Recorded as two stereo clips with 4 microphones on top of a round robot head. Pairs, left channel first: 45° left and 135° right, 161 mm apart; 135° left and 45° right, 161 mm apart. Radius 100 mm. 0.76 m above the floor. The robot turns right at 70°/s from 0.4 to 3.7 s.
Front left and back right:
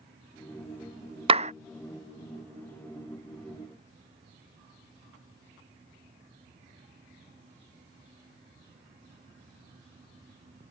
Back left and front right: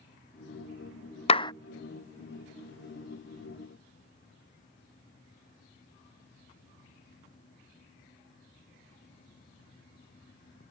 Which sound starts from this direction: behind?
A clap, at 1.3 s.